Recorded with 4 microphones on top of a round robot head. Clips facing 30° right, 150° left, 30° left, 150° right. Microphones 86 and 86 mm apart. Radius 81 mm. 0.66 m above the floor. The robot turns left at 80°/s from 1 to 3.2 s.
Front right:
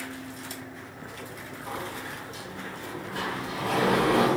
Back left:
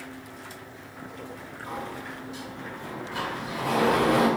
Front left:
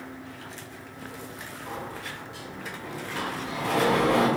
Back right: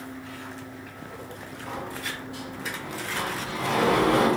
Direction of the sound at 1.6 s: 90° right.